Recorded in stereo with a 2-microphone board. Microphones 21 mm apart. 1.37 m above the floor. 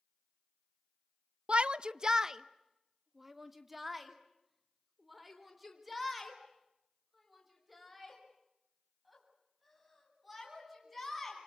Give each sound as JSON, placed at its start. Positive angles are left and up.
{"t": 1.5, "sound": "a shout", "side_deg": -60, "distance_m": 0.5}